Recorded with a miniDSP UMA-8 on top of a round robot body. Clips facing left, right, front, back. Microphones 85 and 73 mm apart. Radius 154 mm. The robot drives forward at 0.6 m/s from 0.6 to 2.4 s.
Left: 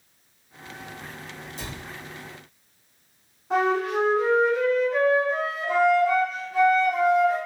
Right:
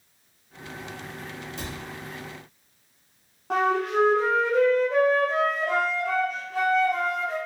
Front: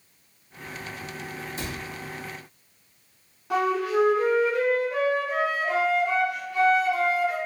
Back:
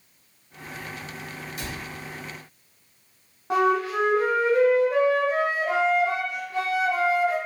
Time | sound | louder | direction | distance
1.6 | a cupboard door | right 1 dB, even | 55° right | 0.9 m
3.5 | a flute | left 1 dB, back 2 dB | 120° right | 0.8 m